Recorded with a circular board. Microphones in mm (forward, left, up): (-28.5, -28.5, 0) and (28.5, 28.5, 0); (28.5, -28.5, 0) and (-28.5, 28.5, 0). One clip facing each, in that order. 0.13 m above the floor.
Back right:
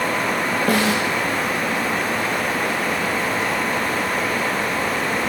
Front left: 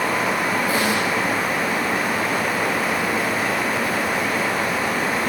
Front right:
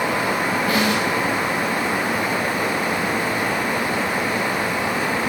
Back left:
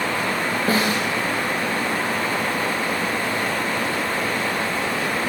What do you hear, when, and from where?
0.7 s a snare drum: 165° right, 8 m